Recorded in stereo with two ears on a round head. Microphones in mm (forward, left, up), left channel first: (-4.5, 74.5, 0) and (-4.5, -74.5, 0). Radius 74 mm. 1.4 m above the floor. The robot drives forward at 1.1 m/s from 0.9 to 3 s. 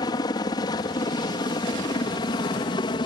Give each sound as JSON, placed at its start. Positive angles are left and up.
{"t": 0.0, "sound": "a helicopter", "side_deg": 25}